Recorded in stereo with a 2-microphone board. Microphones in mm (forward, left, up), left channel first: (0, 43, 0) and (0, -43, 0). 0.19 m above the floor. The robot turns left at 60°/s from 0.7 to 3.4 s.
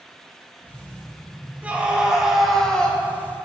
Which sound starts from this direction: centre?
A scream, at 1.6 s.